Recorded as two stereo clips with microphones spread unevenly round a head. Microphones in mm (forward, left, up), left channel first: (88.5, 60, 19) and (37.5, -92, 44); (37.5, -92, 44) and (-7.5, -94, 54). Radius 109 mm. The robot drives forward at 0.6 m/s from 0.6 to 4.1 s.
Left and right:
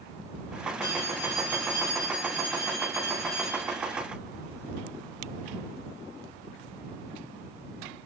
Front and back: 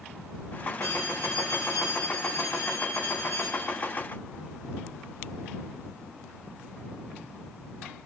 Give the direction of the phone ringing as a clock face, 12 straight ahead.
7 o'clock.